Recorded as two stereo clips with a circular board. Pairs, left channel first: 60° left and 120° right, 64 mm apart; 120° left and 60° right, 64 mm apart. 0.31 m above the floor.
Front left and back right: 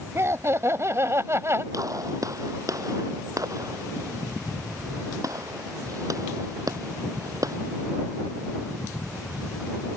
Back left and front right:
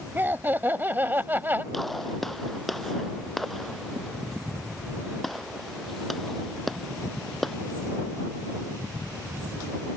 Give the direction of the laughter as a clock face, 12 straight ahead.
4 o'clock.